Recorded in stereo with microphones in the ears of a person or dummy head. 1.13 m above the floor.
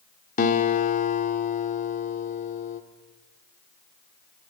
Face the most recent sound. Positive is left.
turn(degrees=50)  # may be behind; listen again after turning